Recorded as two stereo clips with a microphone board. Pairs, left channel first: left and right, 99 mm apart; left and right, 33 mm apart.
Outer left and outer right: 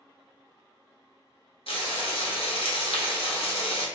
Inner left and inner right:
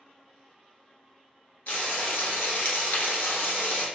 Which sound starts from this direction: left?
Frying, at 1.7 s.